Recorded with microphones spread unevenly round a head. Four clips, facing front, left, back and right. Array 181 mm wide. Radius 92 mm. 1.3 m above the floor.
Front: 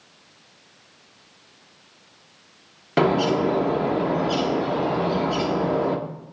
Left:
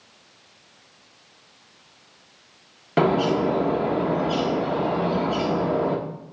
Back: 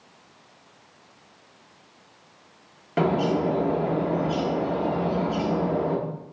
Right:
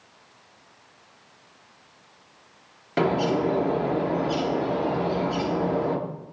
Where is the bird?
40° left, 0.9 m.